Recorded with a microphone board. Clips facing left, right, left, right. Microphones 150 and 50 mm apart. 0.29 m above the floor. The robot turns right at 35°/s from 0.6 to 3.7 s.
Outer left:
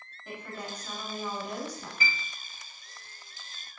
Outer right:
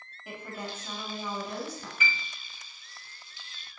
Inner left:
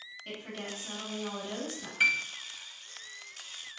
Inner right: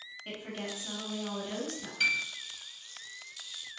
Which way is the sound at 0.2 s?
15° right.